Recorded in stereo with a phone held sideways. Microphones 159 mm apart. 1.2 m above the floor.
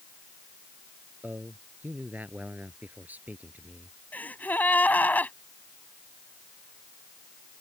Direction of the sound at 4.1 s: 10° left (ahead or behind).